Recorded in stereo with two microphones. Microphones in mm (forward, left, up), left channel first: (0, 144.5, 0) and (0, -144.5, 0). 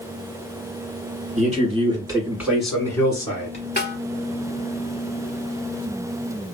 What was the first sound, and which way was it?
A man speaking, 25° right (ahead or behind).